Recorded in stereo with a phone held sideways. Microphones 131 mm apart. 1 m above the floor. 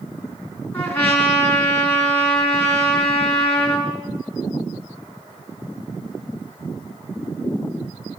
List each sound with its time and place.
0.7 s a trumpet: 15° left (ahead or behind), 7 m